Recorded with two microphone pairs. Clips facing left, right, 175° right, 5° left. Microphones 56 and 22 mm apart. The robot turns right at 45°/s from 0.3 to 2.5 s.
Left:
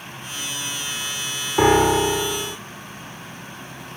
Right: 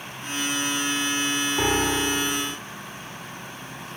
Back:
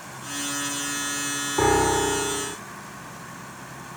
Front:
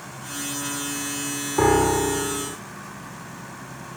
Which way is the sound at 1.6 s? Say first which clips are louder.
Left 10 dB, front 2 dB; 80° left.